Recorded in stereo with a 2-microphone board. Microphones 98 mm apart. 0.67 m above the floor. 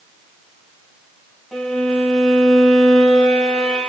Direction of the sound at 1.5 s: 5° left (ahead or behind).